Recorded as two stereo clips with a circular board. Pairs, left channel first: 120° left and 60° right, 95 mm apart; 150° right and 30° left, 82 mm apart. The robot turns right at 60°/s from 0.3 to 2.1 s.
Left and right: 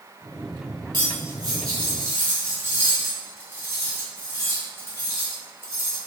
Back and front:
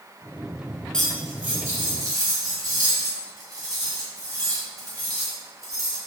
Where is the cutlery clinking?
70° right, 1.2 m; by 6.0 s straight ahead, 1.2 m.